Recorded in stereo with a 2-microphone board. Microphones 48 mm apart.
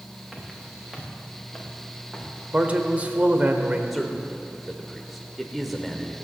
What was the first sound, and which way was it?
Footsteps, 5° right (ahead or behind).